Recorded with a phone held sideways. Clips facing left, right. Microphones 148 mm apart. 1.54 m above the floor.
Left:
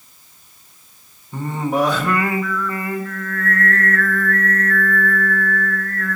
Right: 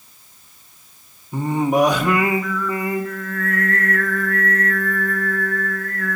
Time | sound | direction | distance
1.3 | singing | 15° right (ahead or behind) | 0.8 m